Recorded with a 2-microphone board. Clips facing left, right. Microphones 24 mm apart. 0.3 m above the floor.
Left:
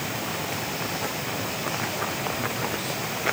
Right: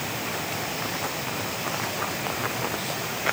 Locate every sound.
Only background noise.